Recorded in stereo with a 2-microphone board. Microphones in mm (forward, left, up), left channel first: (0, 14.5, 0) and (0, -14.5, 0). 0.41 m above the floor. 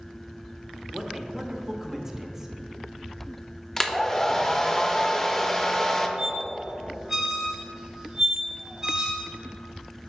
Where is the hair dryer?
15° left (ahead or behind), 0.5 m.